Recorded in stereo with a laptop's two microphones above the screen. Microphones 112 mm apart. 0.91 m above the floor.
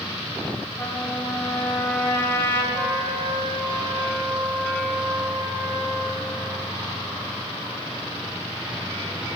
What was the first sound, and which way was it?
A trumpet, 20° left (ahead or behind).